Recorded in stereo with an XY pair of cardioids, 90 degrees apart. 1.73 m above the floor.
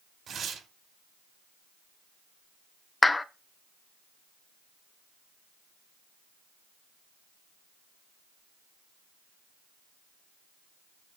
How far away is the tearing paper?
About 5.5 m.